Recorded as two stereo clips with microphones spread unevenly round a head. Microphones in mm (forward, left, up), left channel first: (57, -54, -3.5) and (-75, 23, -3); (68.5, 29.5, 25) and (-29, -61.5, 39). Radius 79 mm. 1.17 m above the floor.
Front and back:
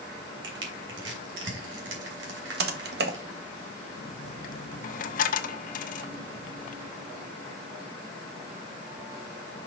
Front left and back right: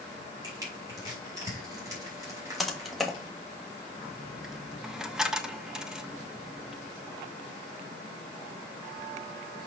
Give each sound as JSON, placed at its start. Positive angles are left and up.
{"t": 0.4, "sound": "crushing", "azimuth_deg": 155, "distance_m": 3.0}
{"t": 2.6, "sound": "typing on a keyboard", "azimuth_deg": 130, "distance_m": 1.1}
{"t": 4.0, "sound": "a dropped coin", "azimuth_deg": -55, "distance_m": 0.8}